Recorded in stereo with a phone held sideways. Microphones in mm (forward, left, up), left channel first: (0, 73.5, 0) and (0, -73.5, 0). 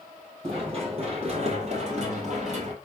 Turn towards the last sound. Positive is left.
turn(degrees=-55)  # may be behind; listen again after turning